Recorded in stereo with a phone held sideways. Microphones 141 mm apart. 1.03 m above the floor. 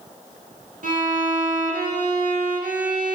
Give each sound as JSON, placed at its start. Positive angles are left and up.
{"t": 0.8, "sound": "a violin", "side_deg": -70, "distance_m": 0.7}